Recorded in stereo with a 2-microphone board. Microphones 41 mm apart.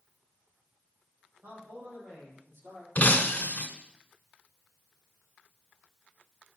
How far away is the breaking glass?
About 1.5 m.